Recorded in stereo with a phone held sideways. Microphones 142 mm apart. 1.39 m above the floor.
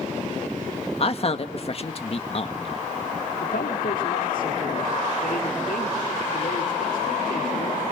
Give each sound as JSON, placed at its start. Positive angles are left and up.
{"t": 1.0, "sound": "a man speaking", "side_deg": 45, "distance_m": 1.5}
{"t": 3.4, "sound": "a man speaking", "side_deg": 75, "distance_m": 4.5}